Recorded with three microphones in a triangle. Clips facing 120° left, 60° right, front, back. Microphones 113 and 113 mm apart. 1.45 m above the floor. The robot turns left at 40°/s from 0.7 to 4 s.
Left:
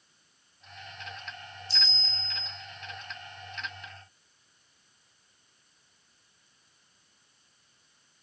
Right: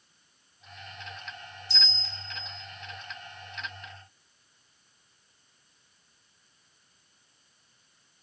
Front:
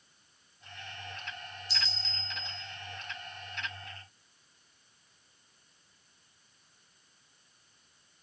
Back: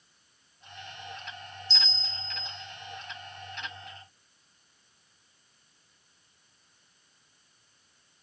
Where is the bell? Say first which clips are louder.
Even, even; 80° right, 0.6 m; by 2.5 s 115° right, 0.6 m.